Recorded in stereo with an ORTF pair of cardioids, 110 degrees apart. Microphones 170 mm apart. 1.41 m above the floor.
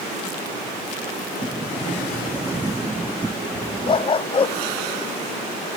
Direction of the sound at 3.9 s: 30° left.